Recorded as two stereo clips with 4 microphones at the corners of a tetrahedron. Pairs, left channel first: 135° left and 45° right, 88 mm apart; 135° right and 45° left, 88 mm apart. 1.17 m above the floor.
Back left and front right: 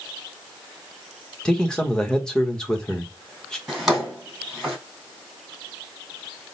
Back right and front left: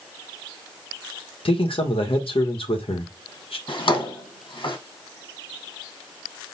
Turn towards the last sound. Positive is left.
turn(degrees=-130)